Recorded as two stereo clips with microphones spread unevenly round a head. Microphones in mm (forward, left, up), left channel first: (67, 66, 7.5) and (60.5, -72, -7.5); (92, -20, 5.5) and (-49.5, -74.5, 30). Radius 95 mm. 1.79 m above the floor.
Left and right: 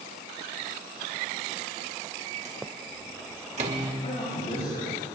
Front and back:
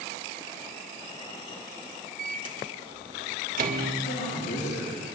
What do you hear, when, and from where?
2.2 s a microwave: 145° right, 1.9 m
4.0 s a man speaking: 50° left, 7 m